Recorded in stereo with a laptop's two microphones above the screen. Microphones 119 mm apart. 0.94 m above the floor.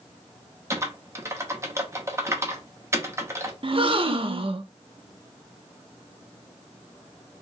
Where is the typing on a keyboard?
25° right (ahead or behind), 0.8 m.